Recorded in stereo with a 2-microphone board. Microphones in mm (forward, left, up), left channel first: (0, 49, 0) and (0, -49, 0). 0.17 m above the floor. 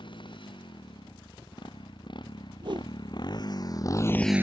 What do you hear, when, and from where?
0.0 s a motorcycle: 55° left (ahead or behind); by 4.4 s 30° right (ahead or behind)
2.6 s a whoosh: 55° right (ahead or behind)